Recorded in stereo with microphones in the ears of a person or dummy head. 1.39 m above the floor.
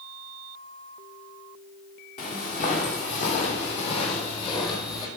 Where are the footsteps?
45° left (ahead or behind), 3 m; by 5.1 s 15° left (ahead or behind), 2 m.